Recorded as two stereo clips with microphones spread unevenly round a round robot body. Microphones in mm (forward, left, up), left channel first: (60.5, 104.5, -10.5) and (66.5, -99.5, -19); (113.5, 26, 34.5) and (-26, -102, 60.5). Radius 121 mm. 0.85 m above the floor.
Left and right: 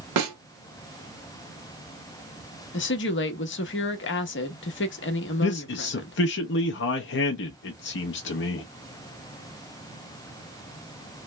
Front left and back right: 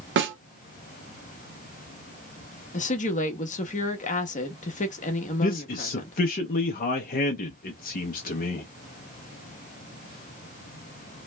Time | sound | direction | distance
0.2 | a snare drum | 115° right | 1.1 m
2.7 | a woman speaking | 80° left | 0.9 m
5.4 | a man speaking | 75° left | 0.6 m